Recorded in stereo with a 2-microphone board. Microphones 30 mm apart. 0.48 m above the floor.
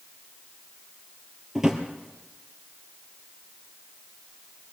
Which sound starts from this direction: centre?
A drawer, at 1.6 s.